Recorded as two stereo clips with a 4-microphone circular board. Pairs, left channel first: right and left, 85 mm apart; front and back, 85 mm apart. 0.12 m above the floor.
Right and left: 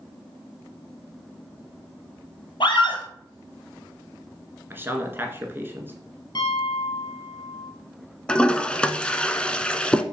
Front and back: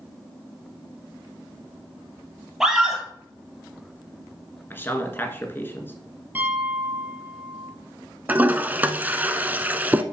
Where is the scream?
95° right, 3 m.